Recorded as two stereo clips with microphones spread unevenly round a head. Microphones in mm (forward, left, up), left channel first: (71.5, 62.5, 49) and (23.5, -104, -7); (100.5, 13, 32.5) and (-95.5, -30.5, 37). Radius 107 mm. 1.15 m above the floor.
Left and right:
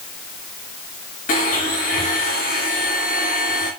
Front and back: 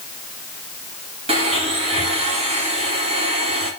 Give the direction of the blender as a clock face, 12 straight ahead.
8 o'clock.